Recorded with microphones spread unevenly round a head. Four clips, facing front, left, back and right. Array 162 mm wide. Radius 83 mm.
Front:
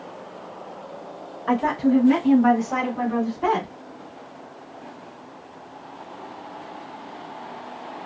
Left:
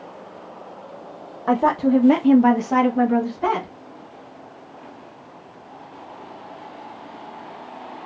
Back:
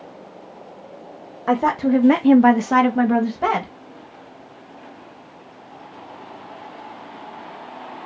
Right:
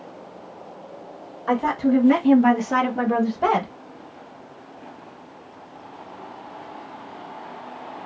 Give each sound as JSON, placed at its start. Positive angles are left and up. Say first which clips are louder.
{"t": 1.5, "sound": "a woman speaking", "louder": "left 2 dB, back 2 dB", "azimuth_deg": 120, "distance_m": 1.0}